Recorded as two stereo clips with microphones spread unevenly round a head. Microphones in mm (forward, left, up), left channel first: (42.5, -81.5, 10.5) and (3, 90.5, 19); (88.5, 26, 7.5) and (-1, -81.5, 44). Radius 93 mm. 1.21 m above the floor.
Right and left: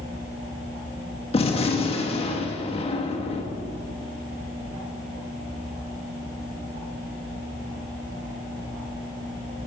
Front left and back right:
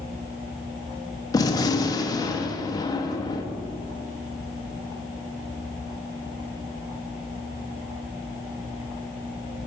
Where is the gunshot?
20° right, 1.0 m.